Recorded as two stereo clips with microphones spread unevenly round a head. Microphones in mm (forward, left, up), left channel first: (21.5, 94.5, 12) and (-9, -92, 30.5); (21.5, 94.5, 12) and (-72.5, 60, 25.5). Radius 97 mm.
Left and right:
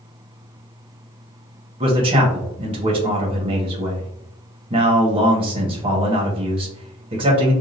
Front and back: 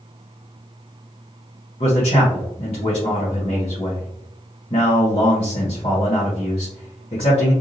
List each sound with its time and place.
1.8 s a man speaking: 35° right, 1.4 m